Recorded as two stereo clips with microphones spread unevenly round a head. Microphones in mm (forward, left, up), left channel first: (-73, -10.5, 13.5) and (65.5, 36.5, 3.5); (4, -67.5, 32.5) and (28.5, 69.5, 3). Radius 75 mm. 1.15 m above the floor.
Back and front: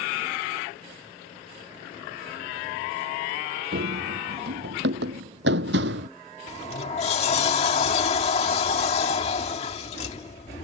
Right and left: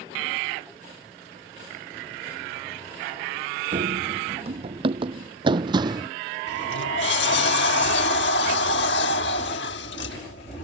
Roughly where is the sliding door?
Right.